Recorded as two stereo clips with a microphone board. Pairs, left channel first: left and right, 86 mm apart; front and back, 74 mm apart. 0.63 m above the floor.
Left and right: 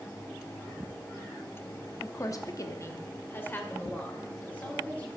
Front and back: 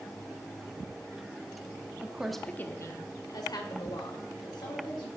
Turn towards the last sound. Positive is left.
turn(degrees=15)